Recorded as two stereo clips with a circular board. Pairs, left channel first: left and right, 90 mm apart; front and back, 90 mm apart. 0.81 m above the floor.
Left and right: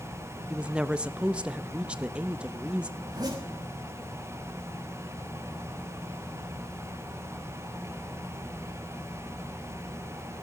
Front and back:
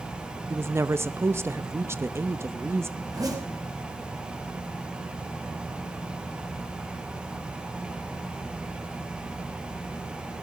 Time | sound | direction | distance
0.5 | a woman speaking | 160° right | 0.6 m
3.0 | a zipper | 135° right | 5.5 m